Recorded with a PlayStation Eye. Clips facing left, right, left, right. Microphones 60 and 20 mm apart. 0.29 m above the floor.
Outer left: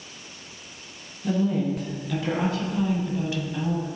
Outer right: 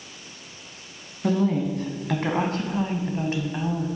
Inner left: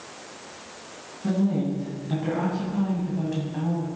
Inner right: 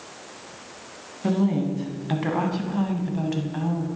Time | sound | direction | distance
1.2 | a woman speaking | 60° right (ahead or behind) | 2 m